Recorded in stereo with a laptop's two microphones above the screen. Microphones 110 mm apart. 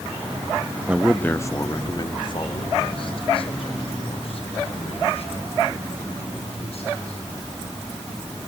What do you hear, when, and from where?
0.9 s a man speaking: 15° right (ahead or behind), 0.8 m; by 7.2 s 55° left (ahead or behind), 9.5 m